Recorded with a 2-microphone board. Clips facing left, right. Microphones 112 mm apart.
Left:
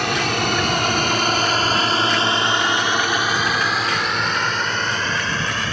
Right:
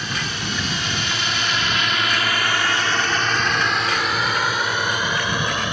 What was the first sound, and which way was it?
A drone, 65° left (ahead or behind).